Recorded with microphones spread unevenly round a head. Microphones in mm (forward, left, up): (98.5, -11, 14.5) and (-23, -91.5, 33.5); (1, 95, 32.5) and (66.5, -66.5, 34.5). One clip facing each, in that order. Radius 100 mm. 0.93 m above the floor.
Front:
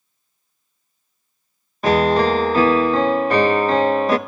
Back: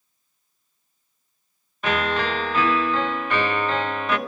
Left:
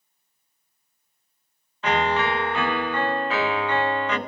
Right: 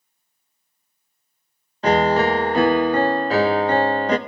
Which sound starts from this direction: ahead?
A piano, at 1.8 s.